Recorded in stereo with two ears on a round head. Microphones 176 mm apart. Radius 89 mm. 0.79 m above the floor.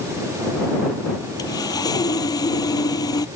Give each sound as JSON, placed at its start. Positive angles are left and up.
{"t": 1.4, "sound": "sawing", "side_deg": 20}